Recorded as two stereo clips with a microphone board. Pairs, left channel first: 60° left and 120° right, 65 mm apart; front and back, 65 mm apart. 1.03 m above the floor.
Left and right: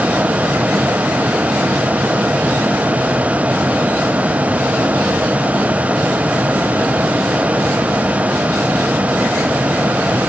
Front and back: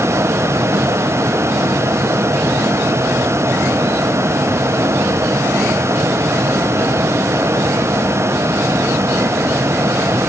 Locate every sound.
Only background noise.